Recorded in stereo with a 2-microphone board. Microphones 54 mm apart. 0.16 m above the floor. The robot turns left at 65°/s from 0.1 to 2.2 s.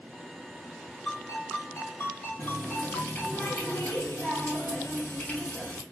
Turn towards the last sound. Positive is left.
turn(degrees=30)  # may be behind; listen again after turning